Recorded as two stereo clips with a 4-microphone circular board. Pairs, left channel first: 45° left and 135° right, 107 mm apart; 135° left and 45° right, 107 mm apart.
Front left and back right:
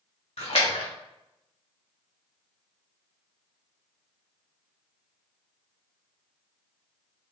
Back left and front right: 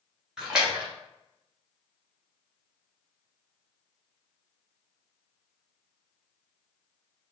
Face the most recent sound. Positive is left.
turn(degrees=35)